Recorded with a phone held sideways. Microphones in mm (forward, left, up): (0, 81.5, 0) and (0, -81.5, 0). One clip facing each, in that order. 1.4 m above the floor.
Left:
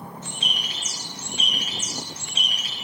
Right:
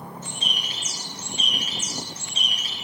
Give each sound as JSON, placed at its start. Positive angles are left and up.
{"t": 0.2, "sound": "a bird", "side_deg": 70, "distance_m": 4.5}